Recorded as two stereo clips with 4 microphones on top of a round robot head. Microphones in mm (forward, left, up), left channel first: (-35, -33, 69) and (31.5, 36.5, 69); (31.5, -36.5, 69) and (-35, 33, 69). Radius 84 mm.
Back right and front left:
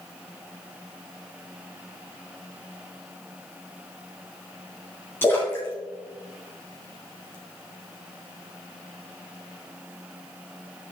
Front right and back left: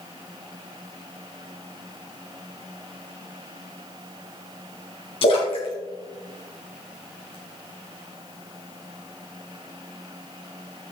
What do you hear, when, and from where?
5.2 s a splash: 65° right, 2.5 m